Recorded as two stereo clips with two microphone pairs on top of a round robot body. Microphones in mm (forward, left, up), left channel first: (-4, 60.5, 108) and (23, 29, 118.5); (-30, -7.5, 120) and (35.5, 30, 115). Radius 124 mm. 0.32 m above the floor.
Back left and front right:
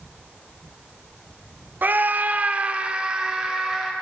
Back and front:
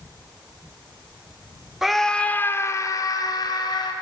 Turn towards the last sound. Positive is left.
turn(degrees=-135)